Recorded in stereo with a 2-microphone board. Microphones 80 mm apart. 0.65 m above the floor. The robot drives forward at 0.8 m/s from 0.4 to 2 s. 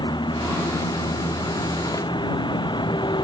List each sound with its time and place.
0.0 s a vehicle: 70° left (ahead or behind)